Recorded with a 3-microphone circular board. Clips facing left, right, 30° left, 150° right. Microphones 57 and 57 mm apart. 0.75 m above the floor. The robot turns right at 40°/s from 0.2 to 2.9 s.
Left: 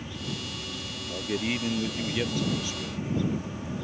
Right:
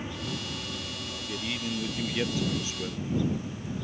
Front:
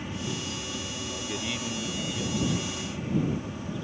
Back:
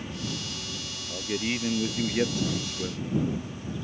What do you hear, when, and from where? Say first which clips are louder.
0.0 s an aircraft: right 1 dB, front 1 dB; 35° right; by 3.9 s 75° left
1.1 s a man speaking: left 7 dB, back 6 dB; 140° left; by 3.0 s 150° right